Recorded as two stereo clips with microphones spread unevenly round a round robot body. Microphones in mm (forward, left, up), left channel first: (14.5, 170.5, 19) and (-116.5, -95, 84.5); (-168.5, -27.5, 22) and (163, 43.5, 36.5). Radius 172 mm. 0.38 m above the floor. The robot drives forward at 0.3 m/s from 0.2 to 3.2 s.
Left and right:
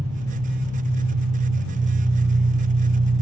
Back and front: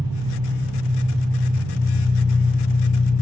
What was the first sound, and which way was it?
An engine running, 65° right.